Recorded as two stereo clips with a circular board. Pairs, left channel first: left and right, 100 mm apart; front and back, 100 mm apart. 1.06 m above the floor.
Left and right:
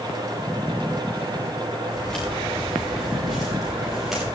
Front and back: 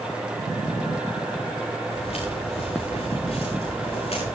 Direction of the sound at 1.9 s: 10° left.